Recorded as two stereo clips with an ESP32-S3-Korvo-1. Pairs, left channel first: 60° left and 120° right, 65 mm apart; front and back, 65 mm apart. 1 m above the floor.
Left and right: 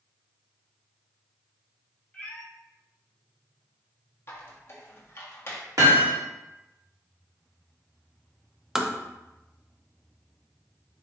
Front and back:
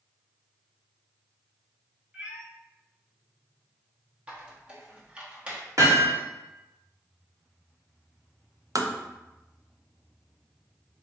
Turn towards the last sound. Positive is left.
turn(degrees=160)